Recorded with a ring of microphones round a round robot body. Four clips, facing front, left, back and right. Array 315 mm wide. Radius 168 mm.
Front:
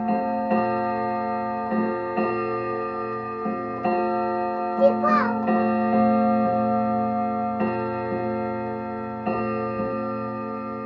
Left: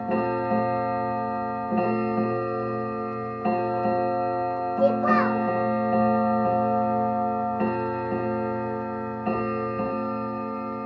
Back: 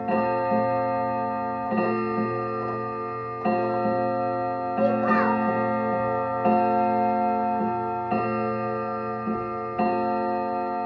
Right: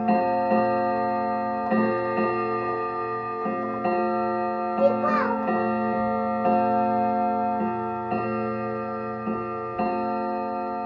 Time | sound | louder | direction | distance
4.8 | a child speaking | left 1 dB, front 3 dB | 5° left | 1.4 m